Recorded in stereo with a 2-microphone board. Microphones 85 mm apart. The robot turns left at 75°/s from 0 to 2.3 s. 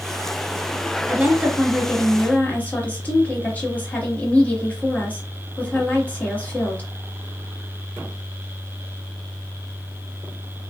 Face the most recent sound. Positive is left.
turn(degrees=145)